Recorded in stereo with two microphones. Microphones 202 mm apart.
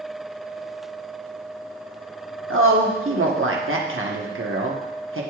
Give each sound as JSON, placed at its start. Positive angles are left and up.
{"t": 2.5, "sound": "a woman speaking", "side_deg": -90, "distance_m": 1.1}